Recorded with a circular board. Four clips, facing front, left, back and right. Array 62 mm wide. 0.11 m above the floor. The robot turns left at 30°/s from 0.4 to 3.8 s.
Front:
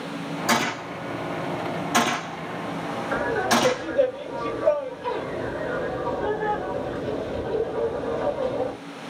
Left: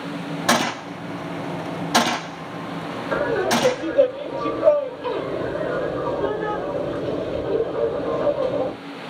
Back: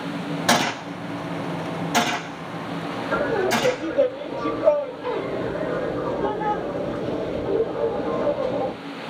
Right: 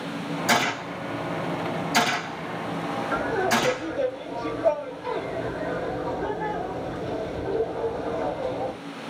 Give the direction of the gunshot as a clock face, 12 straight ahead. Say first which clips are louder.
Left 3 dB, back 2 dB; 7 o'clock.